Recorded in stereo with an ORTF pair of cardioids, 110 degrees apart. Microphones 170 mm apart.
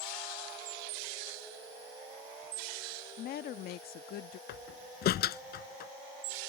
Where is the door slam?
65° left.